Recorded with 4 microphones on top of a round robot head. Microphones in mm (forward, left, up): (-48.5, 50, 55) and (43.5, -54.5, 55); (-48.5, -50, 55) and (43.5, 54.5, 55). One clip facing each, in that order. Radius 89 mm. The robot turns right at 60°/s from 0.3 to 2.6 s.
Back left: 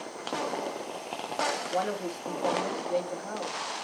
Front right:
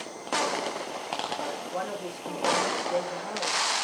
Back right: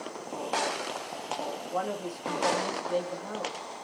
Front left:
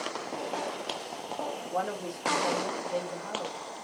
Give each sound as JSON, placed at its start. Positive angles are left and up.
{"t": 1.7, "sound": "a woman speaking", "azimuth_deg": 135, "distance_m": 1.8}